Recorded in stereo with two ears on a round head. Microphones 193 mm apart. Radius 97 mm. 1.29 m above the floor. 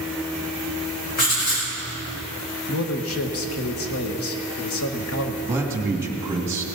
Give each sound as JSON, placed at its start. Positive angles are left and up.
{"t": 1.2, "sound": "writing", "side_deg": 45, "distance_m": 5.5}
{"t": 2.7, "sound": "a man speaking", "side_deg": 75, "distance_m": 1.4}
{"t": 5.5, "sound": "a man speaking", "side_deg": -15, "distance_m": 2.0}